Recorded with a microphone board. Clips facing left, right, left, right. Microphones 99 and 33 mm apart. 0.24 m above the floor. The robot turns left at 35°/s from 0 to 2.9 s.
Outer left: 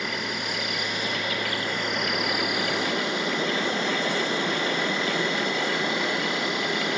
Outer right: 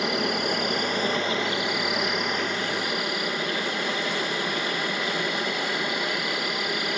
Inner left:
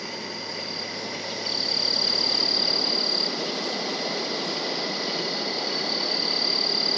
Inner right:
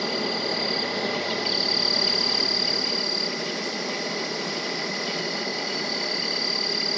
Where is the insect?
105° right, 1.4 m; by 7.0 s 155° left, 1.4 m.